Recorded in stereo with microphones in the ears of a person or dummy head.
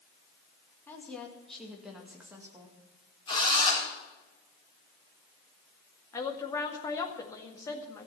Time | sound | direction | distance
0.9 | a woman speaking | 15° left (ahead or behind) | 2 m
3.3 | a drill | 25° left (ahead or behind) | 4.5 m
6.1 | a woman speaking | 20° left (ahead or behind) | 1.8 m